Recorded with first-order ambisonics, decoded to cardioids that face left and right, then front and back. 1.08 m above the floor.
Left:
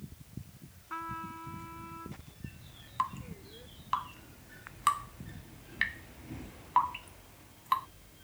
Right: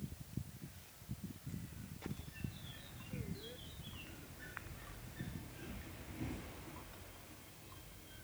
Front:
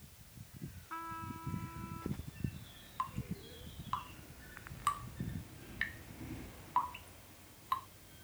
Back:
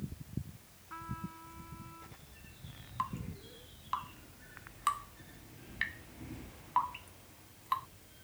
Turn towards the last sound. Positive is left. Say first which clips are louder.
# left 18 dB, back 2 dB
turn(degrees=100)